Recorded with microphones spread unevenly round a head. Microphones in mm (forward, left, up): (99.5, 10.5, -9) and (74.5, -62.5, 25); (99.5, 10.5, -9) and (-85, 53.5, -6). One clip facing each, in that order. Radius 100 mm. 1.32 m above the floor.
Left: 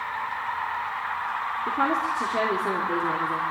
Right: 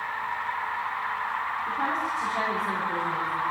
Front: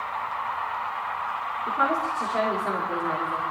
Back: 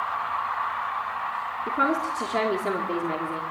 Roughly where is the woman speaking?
Behind left.